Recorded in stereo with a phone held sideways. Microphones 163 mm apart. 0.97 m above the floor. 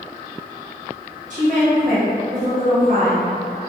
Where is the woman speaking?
55° right (ahead or behind), 1.8 m.